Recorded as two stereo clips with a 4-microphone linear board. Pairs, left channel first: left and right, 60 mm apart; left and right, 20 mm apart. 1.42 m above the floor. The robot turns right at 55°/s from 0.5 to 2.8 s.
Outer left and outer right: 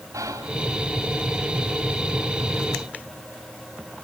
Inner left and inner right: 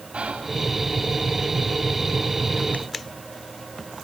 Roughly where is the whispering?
Right.